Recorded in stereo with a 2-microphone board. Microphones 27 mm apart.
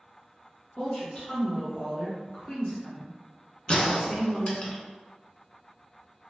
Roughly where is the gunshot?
Left.